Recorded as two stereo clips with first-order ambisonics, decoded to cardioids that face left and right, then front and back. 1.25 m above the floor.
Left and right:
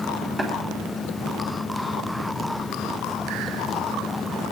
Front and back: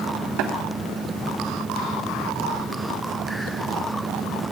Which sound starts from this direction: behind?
Tapping, at 0.4 s.